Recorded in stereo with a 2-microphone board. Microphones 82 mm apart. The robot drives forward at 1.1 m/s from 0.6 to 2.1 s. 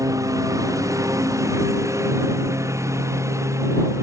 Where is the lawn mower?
40° right (ahead or behind); by 4.0 s 35° right (ahead or behind).